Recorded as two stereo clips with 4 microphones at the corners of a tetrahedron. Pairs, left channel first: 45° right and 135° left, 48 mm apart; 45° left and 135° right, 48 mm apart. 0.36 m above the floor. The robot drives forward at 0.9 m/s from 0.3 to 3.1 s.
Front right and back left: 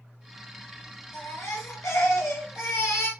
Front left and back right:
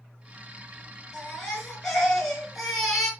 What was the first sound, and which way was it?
A baby crying, 30° right.